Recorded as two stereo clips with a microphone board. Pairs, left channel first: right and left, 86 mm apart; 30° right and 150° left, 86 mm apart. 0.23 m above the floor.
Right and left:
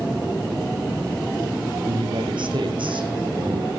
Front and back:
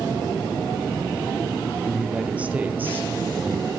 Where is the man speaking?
70° left, 4.5 m; by 3.7 s 90° left, 5.5 m.